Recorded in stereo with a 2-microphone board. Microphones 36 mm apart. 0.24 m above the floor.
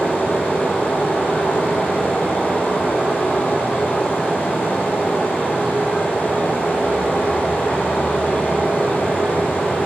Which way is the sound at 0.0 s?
60° left (ahead or behind).